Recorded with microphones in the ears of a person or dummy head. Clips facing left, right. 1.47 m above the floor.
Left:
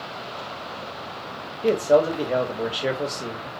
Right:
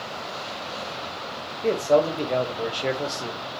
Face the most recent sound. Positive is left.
turn(degrees=15)  # may be behind; listen again after turning